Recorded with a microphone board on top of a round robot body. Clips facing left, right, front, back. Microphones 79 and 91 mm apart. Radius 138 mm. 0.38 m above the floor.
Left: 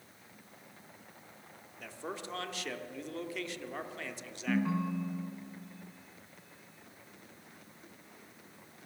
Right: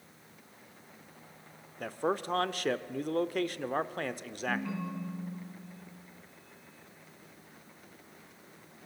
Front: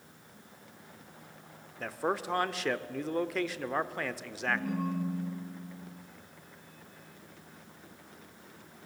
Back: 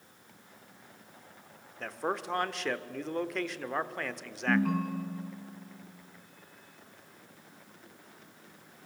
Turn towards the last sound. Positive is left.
turn(degrees=155)